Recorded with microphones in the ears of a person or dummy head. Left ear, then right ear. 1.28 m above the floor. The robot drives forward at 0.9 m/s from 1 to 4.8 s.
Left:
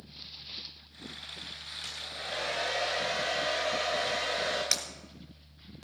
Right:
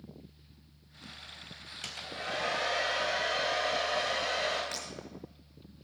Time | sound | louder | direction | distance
1.8 | a hair dryer | right 2 dB | 25° right (ahead or behind) | 1.4 m
4.7 | breaking glass | left 9 dB | 65° left (ahead or behind) | 4 m